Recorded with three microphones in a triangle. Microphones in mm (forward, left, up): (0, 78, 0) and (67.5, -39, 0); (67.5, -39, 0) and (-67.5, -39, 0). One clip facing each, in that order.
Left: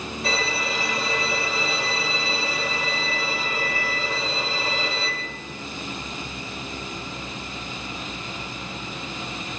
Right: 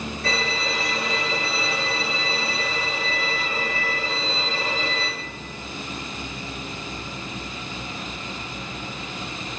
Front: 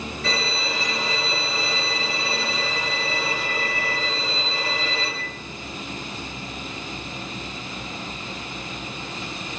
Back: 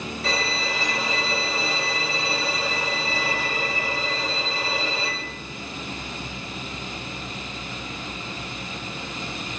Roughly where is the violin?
Behind.